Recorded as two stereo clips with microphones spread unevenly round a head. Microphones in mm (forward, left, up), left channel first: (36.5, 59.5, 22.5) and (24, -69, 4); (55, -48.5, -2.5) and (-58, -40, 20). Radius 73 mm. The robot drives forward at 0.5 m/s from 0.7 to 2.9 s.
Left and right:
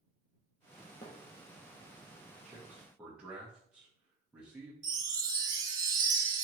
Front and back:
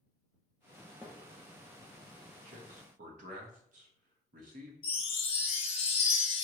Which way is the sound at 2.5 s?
Straight behind.